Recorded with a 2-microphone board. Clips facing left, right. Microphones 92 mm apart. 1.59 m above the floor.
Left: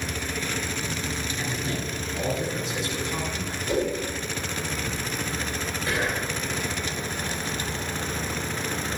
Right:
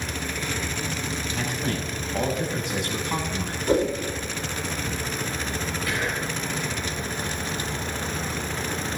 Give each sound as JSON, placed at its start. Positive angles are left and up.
{"t": 1.4, "sound": "a man speaking", "side_deg": -70, "distance_m": 6.5}
{"t": 3.7, "sound": "a whoosh", "side_deg": -45, "distance_m": 4.0}
{"t": 5.9, "sound": "whispering", "side_deg": 30, "distance_m": 3.5}